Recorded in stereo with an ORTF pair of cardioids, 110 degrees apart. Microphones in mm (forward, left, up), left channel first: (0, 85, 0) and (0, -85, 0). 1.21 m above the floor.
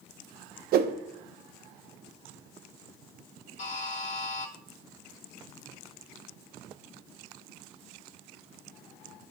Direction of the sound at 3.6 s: 45° left.